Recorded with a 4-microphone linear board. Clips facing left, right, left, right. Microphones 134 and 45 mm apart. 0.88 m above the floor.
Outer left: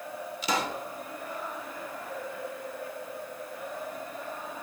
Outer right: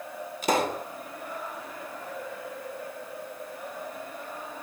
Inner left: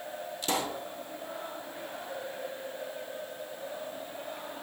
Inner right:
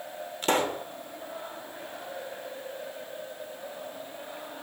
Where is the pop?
50° right (ahead or behind), 1.1 m.